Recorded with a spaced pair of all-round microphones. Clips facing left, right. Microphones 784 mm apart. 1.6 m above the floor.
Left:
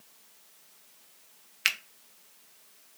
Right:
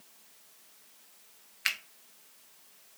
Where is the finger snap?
65° left (ahead or behind), 0.6 m.